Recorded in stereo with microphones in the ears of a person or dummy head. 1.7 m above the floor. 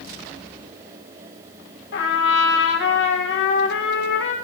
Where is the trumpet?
70° left (ahead or behind), 1.5 m.